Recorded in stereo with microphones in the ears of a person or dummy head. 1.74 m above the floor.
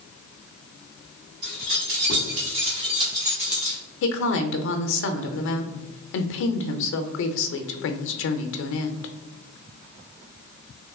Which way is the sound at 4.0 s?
70° left (ahead or behind).